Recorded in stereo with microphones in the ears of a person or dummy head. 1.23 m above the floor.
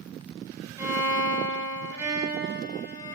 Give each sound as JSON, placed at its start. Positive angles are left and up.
{"t": 0.8, "sound": "a violin", "side_deg": -15, "distance_m": 0.7}